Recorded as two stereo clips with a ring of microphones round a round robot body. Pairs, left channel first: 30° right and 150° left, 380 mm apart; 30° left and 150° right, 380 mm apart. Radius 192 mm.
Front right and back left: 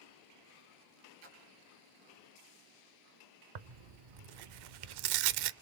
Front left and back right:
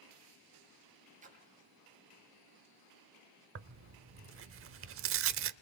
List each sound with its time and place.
1.2 s a splash: 140° left, 4.5 m
3.5 s tearing paper: 155° left, 0.7 m